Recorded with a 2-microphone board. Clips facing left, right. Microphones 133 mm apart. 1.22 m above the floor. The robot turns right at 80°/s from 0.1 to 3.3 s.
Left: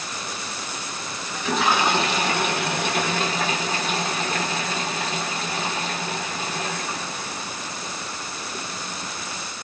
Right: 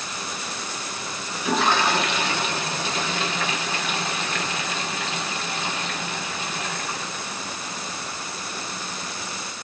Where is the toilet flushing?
20° right, 0.7 m; by 8.7 s 135° left, 0.7 m.